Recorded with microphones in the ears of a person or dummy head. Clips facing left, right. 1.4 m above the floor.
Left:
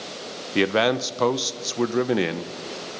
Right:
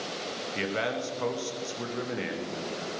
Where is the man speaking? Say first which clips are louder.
Left 11 dB; 75° left (ahead or behind), 0.7 m.